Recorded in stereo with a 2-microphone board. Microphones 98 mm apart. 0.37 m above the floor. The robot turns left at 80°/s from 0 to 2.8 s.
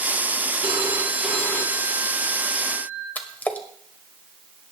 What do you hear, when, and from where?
0.6 s a phone ringing: 130° right, 2.5 m; by 3.0 s 60° left, 2.5 m
3.1 s a splash: 20° left (ahead or behind), 1.7 m